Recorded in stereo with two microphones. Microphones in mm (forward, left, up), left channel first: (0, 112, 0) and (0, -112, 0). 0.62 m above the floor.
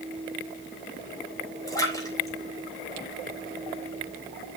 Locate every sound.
1.7 s a splash: 15° left (ahead or behind), 3.5 m